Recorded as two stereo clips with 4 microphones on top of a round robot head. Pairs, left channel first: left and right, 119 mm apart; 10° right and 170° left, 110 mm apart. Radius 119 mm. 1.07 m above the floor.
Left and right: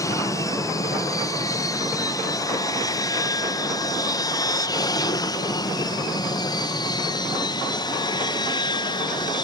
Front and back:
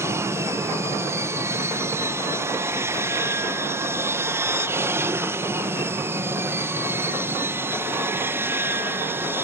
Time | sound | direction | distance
0.0 | an aircraft | 125° left | ?